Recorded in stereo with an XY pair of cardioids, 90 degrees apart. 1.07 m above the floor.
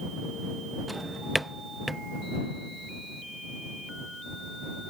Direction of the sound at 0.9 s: 10° right.